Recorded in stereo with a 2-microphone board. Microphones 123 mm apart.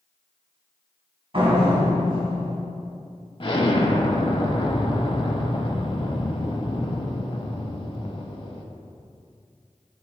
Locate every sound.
1.3 s a door slam: 50° right (ahead or behind), 1.8 m
3.4 s an explosion: 45° left (ahead or behind), 0.6 m